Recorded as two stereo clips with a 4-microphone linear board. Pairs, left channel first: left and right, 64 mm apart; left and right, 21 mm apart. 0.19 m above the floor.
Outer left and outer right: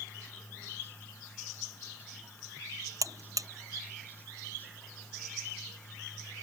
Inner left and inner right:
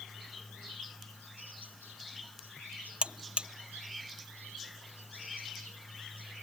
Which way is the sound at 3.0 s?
60° right (ahead or behind).